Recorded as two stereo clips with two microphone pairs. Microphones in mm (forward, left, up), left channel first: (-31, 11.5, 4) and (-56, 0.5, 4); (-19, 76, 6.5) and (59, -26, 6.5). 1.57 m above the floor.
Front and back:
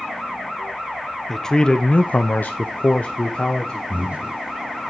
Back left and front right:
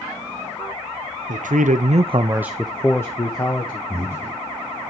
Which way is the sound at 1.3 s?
55° right.